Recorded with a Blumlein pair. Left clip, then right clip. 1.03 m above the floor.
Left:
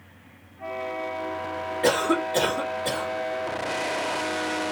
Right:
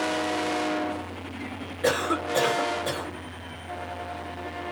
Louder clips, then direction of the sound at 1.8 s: Left 2 dB; 55° left.